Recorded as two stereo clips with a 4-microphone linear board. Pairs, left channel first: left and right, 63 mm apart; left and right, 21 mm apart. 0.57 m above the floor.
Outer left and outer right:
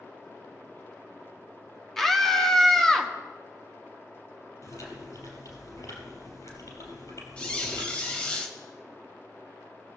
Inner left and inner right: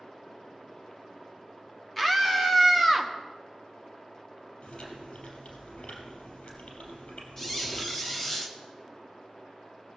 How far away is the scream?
About 0.9 m.